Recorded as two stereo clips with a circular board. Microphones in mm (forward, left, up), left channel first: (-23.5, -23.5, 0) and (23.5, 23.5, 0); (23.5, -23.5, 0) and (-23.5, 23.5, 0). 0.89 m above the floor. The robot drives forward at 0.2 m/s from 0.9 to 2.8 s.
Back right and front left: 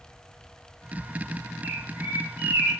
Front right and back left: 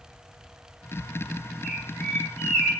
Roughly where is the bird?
Ahead left.